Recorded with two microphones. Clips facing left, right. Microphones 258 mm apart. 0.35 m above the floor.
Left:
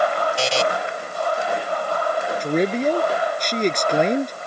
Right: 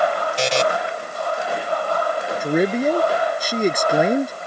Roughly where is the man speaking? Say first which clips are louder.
Right 2 dB; centre.